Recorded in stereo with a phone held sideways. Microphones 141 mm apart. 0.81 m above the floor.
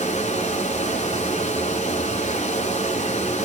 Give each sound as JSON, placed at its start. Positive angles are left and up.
{"t": 0.0, "sound": "running water", "side_deg": 55, "distance_m": 1.2}